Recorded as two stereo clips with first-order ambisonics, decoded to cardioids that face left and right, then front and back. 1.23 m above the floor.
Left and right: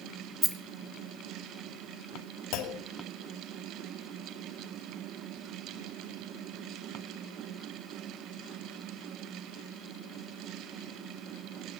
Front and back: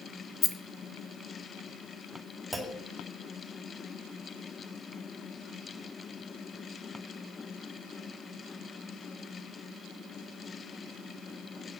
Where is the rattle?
30° right, 0.8 m.